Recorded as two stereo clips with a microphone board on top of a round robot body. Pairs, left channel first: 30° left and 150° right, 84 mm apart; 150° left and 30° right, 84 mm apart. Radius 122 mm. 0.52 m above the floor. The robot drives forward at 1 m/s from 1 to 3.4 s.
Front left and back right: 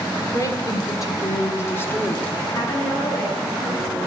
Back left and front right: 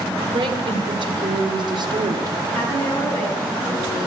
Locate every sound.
0.3 s a woman speaking: 20° right, 2.5 m; by 2.4 s 45° right, 1.3 m
2.5 s a woman speaking: 80° left, 6.5 m; by 4.0 s 85° left, 6.5 m